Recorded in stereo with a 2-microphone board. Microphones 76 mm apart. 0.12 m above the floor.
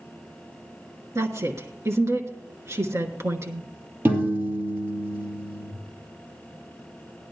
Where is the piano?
30° right (ahead or behind), 2.5 m.